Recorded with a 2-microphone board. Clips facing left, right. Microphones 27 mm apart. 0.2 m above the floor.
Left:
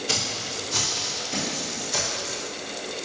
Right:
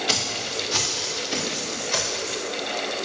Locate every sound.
0.1 s footsteps: 40° right (ahead or behind), 1.9 m; by 2.4 s 50° right (ahead or behind), 3.5 m